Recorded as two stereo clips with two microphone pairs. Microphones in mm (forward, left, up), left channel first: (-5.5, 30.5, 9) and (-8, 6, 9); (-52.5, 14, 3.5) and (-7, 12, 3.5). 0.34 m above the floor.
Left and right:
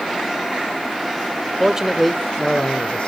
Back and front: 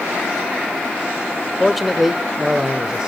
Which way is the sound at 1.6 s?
105° right.